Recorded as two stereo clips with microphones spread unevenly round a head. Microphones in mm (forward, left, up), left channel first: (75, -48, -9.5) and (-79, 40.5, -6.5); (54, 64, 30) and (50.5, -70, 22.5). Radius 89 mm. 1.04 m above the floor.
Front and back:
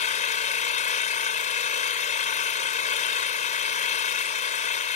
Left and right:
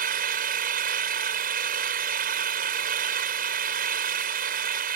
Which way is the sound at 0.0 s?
80° right.